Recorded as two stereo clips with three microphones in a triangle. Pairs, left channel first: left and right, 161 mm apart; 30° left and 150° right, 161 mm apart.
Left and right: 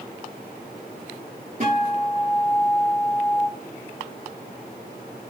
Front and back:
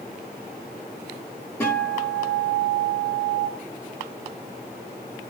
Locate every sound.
1.6 s a guitar: 45° right, 6.5 m